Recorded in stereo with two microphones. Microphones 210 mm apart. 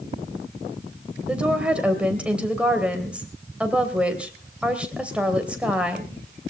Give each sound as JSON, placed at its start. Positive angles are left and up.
{"t": 1.3, "sound": "a woman speaking", "side_deg": -5, "distance_m": 2.5}